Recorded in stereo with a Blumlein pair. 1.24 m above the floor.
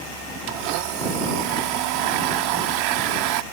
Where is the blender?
45° right.